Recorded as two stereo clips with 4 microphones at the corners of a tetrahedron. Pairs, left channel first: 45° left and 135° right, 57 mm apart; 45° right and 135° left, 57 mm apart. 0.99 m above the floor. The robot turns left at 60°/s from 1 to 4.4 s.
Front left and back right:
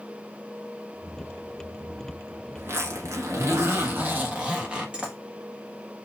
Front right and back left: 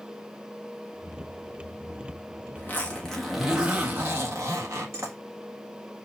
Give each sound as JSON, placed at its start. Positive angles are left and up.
{"t": 2.6, "sound": "a zipper", "azimuth_deg": -95, "distance_m": 1.4}